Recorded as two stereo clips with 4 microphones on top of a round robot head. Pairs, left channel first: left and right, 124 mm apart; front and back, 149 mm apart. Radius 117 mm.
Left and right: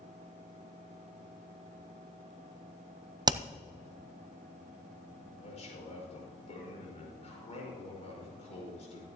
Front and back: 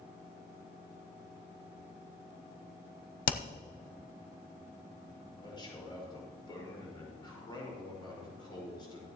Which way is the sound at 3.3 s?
30° right.